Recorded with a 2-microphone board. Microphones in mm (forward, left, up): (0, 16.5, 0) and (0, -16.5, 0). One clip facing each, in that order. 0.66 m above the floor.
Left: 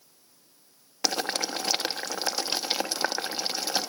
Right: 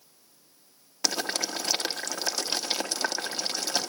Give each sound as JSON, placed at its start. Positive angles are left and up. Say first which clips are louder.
{"t": 1.0, "sound": "boiling", "louder": "left 1 dB", "side_deg": 15, "distance_m": 1.1}